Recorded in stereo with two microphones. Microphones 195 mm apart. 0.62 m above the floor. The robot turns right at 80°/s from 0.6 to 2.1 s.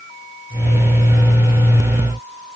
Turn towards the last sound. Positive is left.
No sound to turn to.